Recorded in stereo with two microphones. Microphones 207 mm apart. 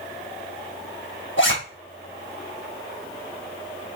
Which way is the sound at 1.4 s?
65° left (ahead or behind).